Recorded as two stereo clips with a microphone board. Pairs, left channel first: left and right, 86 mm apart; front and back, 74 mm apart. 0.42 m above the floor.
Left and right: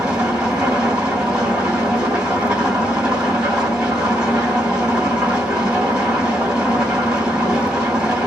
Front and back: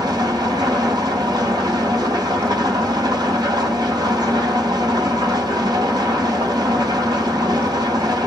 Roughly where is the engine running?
Behind.